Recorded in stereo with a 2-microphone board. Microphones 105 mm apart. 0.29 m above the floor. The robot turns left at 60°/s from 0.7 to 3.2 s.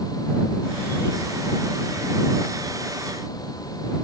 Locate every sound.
Only background noise.